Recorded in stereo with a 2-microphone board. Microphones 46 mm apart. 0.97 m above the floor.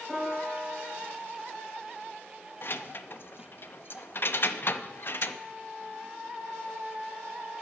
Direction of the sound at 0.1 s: Centre (ahead or behind).